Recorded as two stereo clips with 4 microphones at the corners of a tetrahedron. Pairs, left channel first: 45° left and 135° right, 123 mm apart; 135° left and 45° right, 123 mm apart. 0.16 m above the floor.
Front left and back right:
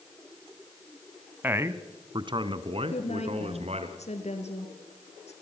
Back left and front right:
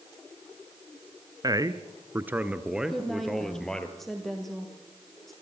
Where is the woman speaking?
50° left, 4.5 m.